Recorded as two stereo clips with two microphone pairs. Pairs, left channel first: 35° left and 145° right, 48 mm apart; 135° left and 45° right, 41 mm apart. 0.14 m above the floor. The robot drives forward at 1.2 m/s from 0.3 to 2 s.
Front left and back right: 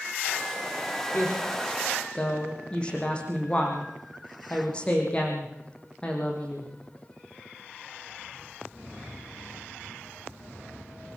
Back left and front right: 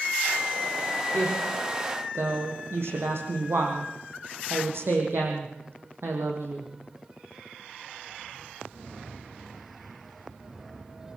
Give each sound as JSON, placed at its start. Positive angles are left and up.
{"t": 1.1, "sound": "a woman speaking", "azimuth_deg": -30, "distance_m": 6.0}